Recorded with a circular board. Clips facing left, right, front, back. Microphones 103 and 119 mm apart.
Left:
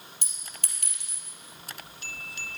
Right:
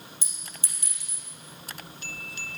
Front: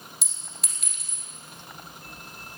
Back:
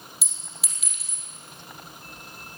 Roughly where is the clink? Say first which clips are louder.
Right 1 dB, even; left.